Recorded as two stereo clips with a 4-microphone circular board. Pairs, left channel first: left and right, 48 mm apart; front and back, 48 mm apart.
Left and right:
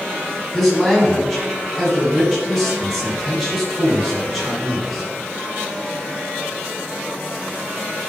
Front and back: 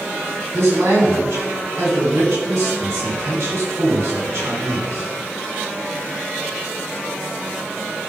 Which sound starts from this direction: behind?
A man speaking, at 0.5 s.